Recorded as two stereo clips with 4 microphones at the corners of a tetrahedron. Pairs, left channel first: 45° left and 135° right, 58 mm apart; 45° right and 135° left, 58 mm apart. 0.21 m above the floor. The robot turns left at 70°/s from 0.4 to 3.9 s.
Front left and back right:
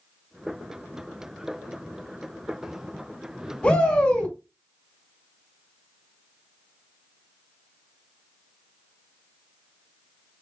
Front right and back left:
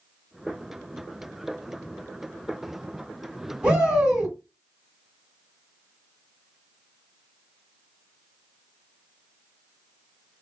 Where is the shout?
90° left, 1.6 m; by 4.3 s 70° left, 1.6 m.